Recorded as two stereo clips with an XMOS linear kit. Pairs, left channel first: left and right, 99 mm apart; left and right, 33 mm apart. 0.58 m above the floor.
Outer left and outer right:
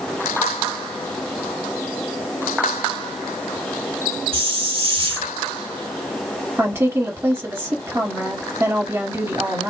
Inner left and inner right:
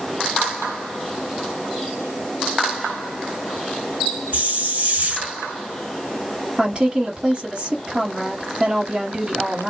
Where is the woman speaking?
25° right (ahead or behind), 1.5 m.